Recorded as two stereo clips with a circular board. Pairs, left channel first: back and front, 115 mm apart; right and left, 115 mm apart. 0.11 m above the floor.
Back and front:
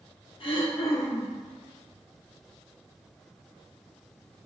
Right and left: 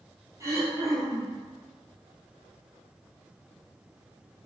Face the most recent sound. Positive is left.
turn(degrees=150)